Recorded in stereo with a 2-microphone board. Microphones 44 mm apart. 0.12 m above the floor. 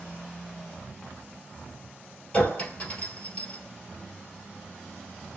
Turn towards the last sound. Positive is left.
turn(degrees=35)  # may be behind; listen again after turning